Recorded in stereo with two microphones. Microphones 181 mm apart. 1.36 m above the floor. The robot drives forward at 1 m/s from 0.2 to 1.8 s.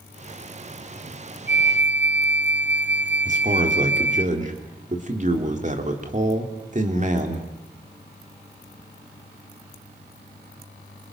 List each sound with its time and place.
1.5 s a flute: 75° right (ahead or behind), 0.7 m
3.2 s a man speaking: 45° right (ahead or behind), 3 m